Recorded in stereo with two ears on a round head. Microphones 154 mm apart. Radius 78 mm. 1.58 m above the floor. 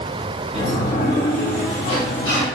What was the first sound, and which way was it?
A sliding door, 40° left (ahead or behind).